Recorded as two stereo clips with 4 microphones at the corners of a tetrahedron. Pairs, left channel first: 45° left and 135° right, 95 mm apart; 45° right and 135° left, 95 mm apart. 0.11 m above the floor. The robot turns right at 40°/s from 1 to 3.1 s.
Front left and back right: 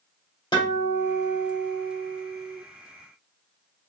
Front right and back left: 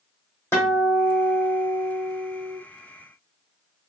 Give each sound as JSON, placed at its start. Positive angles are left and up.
{"t": 0.5, "sound": "a guitar", "azimuth_deg": 20, "distance_m": 2.0}